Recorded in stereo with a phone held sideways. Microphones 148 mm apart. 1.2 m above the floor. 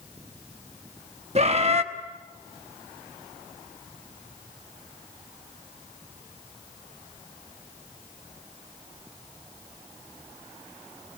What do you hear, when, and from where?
1.4 s a bird: 45° right (ahead or behind), 1.0 m